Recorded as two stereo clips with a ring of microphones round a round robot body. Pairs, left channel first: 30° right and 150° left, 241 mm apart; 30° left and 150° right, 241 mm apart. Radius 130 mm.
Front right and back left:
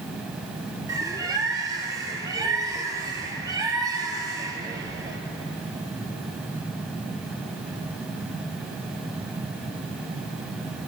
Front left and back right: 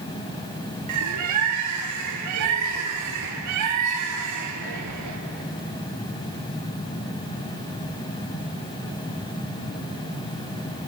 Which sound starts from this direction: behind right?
A bird, at 0.9 s.